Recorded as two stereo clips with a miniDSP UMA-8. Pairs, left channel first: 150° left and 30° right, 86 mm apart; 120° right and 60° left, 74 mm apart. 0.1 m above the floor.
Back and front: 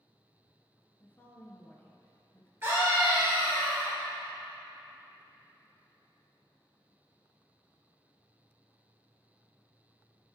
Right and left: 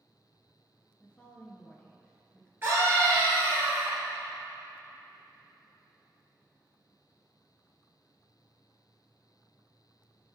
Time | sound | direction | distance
1.0 | a woman speaking | 170° right | 1.2 m
2.6 | a scream | 20° left | 1.8 m